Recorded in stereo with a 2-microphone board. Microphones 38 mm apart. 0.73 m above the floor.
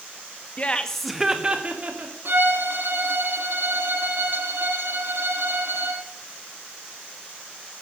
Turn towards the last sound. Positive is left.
turn(degrees=-70)  # may be behind; listen again after turning